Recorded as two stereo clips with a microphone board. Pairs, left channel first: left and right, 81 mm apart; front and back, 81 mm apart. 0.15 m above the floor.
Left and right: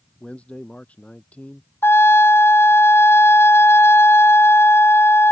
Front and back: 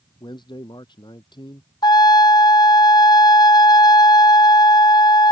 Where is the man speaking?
15° left.